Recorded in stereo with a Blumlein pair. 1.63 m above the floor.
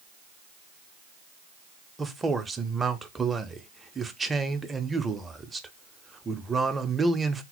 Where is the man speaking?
10° right, 0.5 m.